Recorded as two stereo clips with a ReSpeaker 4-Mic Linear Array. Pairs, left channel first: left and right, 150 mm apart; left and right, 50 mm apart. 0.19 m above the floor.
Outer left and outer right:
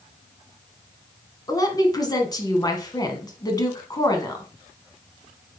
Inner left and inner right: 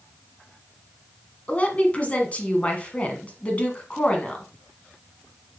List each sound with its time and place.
1.5 s a woman speaking: 25° left (ahead or behind), 1.3 m